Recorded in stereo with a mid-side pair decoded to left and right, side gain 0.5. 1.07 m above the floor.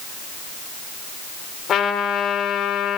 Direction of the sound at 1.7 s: 55° left.